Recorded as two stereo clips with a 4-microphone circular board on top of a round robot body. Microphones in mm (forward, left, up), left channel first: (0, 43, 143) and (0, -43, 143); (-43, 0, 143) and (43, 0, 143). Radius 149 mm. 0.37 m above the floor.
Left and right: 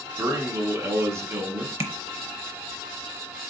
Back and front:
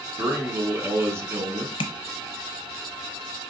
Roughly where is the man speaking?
Ahead right.